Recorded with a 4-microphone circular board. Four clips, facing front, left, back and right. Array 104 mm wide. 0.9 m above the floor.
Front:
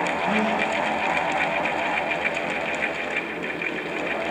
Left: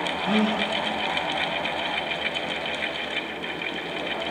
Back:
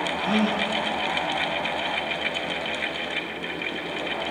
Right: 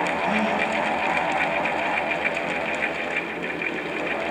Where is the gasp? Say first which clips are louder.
Right 1 dB, back 2 dB; 150° left, 7.5 m.